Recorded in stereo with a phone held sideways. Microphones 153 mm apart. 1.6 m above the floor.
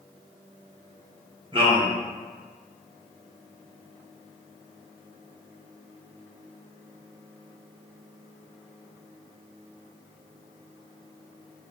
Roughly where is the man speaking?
Right.